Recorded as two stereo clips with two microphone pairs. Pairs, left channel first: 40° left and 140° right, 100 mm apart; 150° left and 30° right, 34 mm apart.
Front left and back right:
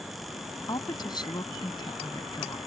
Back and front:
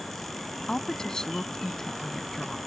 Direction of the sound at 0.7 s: 80° left.